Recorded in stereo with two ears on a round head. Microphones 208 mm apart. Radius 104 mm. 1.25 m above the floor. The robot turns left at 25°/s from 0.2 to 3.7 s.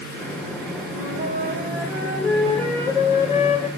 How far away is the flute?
About 4.5 m.